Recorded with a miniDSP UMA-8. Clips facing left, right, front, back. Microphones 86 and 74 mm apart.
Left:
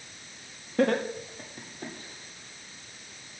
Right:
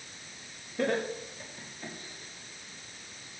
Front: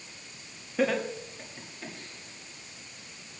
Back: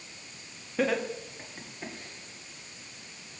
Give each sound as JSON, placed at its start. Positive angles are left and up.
{"t": 0.8, "sound": "laughter", "azimuth_deg": 85, "distance_m": 1.3}